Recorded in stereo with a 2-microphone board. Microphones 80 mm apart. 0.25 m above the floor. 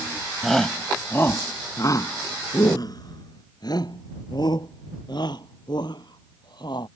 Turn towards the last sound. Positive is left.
turn(degrees=60)  # may be behind; listen again after turning